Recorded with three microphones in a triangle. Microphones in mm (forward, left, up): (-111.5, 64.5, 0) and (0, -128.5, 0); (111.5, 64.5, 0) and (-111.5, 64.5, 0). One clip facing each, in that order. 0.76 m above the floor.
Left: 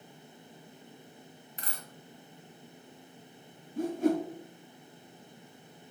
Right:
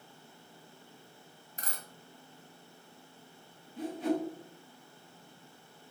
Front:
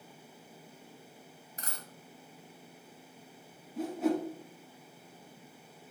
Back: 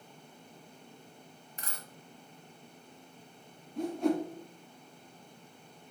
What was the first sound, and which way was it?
A dropped coin, 30° right.